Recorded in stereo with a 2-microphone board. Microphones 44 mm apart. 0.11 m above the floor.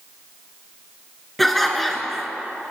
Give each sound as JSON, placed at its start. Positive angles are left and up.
{"t": 1.4, "sound": "laughter", "side_deg": 5, "distance_m": 1.7}